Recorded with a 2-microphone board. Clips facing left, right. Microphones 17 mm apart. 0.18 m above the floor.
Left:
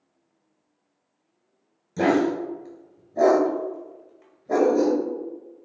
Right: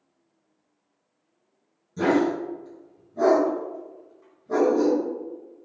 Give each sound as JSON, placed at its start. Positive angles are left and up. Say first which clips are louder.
{"t": 2.0, "sound": "a dog barking", "louder": "left 1 dB", "side_deg": 50, "distance_m": 1.3}